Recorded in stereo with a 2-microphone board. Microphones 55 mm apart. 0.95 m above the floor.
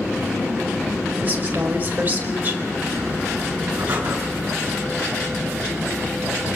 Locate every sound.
1.2 s a woman speaking: 35° right (ahead or behind), 5 m
3.8 s breathing: 30° right (ahead or behind), 9 m